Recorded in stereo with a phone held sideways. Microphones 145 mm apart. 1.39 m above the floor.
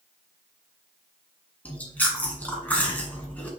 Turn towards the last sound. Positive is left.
turn(degrees=10)  # may be behind; listen again after turning